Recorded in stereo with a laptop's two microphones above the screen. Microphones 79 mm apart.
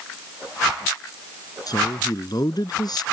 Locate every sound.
1.7 s a woman speaking: 55° left (ahead or behind)